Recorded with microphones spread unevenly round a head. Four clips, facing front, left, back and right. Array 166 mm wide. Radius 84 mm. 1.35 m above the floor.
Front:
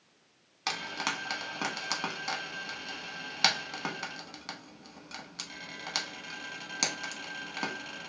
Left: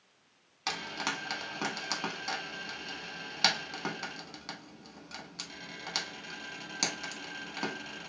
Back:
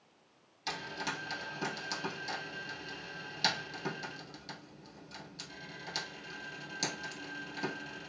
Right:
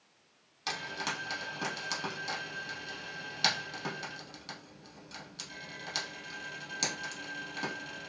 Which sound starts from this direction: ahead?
Frying, at 0.7 s.